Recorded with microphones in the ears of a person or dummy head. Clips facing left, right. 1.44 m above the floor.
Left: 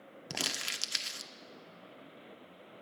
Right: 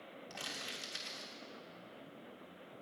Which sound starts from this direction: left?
Crumpling, at 0.3 s.